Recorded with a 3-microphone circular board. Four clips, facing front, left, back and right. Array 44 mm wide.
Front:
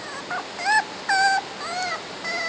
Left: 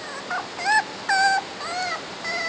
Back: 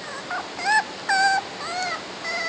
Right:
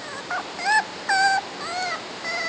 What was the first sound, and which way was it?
Only background noise.